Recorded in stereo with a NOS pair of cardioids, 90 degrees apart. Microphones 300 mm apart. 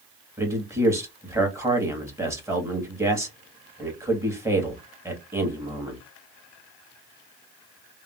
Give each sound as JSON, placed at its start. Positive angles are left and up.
{"t": 0.4, "sound": "a man speaking", "azimuth_deg": -10, "distance_m": 1.6}